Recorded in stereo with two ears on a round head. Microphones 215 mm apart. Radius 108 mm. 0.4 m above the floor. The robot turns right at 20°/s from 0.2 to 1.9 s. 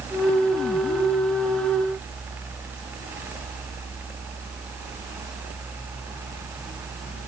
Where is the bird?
I don't hear a bird.